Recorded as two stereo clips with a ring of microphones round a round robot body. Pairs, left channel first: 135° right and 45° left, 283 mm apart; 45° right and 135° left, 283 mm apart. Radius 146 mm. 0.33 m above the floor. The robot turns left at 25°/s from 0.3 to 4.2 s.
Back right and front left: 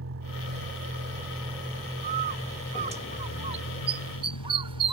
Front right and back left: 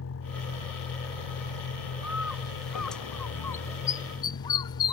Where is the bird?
60° left; by 4.9 s 5° left.